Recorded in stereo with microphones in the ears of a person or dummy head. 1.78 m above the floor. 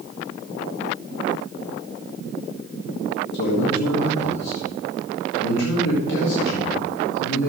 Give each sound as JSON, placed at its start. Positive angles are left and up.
{"t": 3.3, "sound": "a man speaking", "side_deg": 60, "distance_m": 3.5}